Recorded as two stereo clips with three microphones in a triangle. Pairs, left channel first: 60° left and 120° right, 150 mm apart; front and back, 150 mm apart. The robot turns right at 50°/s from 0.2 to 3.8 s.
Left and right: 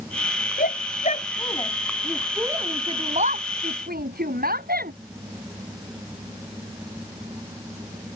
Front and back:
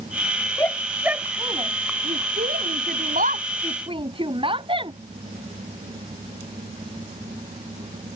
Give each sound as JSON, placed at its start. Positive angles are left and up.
{"t": 0.6, "sound": "a shout", "azimuth_deg": 75}